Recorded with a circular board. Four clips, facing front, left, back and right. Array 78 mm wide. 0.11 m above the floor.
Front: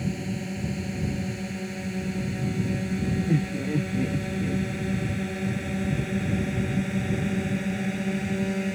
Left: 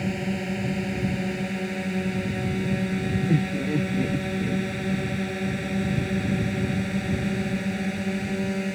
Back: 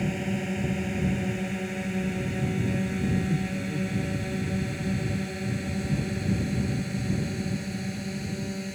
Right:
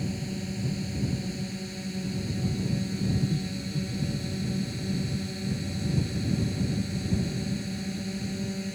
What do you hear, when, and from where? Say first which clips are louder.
0.0 s a drone: left 6 dB, back 2 dB; 115° left; by 8.8 s 55° left
3.3 s laughter: left 8 dB, front 4 dB; 65° left